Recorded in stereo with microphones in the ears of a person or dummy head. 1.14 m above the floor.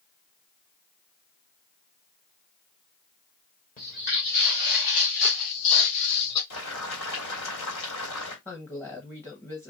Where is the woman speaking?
10° left (ahead or behind), 0.9 m.